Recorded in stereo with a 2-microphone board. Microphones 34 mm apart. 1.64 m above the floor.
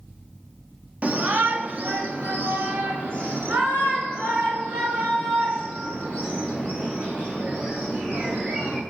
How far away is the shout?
About 0.7 m.